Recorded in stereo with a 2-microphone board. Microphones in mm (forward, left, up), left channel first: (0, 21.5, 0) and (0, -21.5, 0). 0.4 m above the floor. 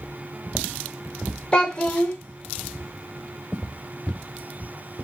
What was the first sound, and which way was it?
A child speaking, 25° left (ahead or behind).